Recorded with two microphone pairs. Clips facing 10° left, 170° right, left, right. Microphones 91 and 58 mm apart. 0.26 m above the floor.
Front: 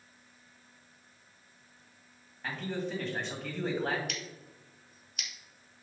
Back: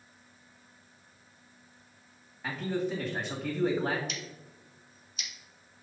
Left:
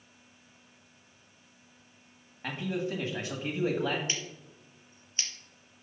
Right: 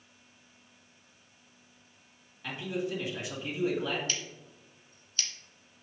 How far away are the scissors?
About 1.3 m.